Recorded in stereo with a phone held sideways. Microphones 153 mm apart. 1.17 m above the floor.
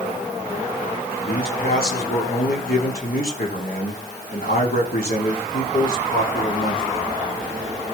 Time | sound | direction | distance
1.3 | a man speaking | 75° left (ahead or behind) | 3.5 m